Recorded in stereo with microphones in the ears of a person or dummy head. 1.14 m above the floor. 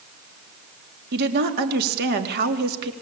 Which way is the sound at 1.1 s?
60° right (ahead or behind).